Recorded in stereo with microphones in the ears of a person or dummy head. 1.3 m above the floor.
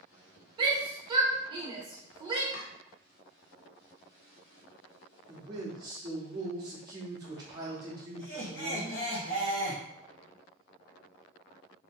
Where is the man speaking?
25° right (ahead or behind), 0.7 m.